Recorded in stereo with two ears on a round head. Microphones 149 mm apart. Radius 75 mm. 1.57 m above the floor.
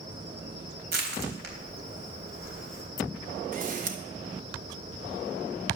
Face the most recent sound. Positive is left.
turn(degrees=-55)  # may be behind; listen again after turning